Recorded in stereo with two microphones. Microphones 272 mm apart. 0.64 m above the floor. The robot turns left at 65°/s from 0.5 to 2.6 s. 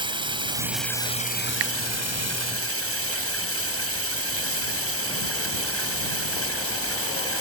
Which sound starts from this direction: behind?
Running water, at 0.0 s.